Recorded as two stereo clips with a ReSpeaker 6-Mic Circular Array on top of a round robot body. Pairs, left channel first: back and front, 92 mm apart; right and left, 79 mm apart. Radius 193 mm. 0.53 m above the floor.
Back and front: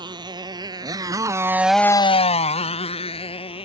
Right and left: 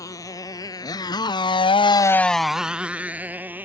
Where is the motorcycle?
45° right; by 3.7 s 155° left.